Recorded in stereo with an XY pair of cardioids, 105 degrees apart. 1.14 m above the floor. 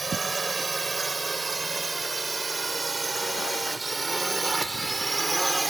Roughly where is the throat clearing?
I don't hear throat clearing.